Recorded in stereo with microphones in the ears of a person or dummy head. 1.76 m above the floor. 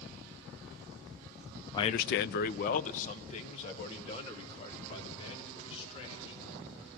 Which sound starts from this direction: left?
A man speaking, at 1.7 s.